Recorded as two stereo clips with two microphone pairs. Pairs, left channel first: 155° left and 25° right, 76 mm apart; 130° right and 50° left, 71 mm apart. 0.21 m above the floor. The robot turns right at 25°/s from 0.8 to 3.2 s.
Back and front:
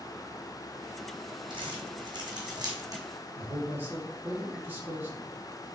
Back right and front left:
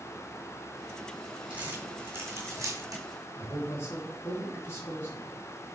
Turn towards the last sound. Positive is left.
turn(degrees=-85)